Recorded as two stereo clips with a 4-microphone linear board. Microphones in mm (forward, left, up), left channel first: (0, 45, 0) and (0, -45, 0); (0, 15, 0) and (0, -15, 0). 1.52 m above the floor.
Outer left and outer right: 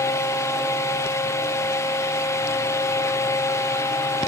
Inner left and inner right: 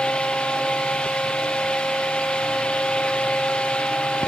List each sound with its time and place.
Only background noise.